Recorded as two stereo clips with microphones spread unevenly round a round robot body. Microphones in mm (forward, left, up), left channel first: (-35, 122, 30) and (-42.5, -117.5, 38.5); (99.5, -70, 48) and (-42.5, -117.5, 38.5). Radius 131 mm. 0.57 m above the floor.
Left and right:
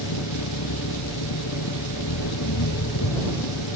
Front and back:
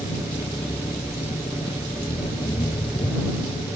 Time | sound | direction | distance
0.0 | an engine running | 90° left | ?